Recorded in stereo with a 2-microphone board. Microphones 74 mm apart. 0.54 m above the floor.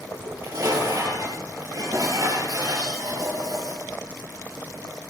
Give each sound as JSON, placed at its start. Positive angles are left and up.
{"t": 0.1, "sound": "dishes clattering", "side_deg": -55, "distance_m": 7.5}